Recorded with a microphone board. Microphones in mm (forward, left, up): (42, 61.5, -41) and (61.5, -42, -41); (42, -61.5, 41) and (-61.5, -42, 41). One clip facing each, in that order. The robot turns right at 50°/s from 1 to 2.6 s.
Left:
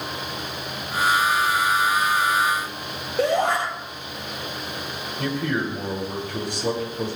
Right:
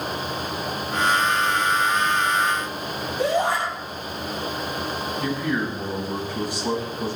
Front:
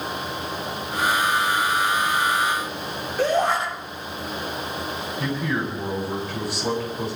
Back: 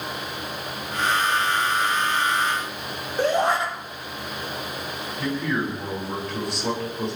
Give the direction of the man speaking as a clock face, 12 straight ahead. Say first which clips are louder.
Left 1 dB, back 1 dB; 9 o'clock.